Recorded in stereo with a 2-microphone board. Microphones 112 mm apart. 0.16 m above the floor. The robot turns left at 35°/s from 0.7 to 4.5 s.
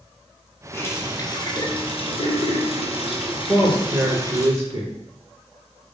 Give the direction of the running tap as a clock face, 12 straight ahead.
7 o'clock.